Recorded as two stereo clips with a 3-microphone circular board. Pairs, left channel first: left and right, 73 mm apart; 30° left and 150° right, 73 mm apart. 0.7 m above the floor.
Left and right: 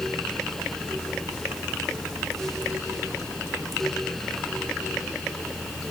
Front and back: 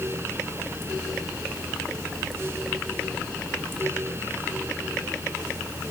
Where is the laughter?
I don't hear laughter.